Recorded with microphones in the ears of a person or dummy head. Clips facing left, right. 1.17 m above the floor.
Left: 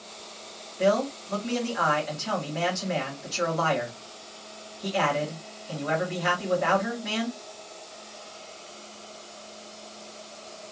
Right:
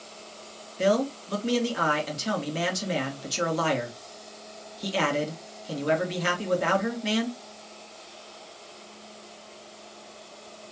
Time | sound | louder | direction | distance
0.8 | a man speaking | even | 50° right (ahead or behind) | 1.9 m